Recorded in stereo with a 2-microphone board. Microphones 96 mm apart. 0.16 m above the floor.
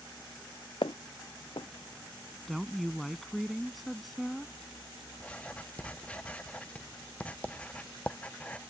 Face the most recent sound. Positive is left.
turn(degrees=15)  # may be behind; listen again after turning